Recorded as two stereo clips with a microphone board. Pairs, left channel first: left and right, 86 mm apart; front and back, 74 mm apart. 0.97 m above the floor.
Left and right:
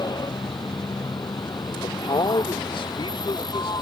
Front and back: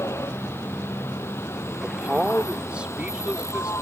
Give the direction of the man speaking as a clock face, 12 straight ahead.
9 o'clock.